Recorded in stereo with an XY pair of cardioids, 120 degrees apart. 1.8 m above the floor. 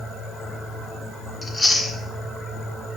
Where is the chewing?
10° left, 1.5 m.